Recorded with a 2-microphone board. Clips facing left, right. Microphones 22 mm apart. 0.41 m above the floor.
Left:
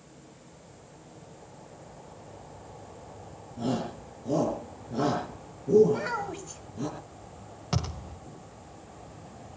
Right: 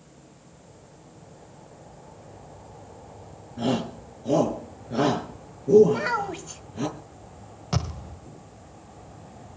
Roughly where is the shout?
Right.